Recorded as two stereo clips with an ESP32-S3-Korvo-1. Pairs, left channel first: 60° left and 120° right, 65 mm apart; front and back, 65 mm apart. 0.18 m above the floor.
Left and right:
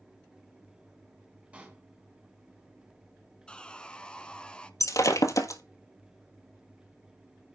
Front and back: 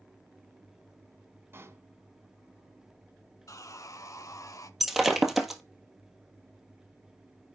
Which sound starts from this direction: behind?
A pop, at 1.5 s.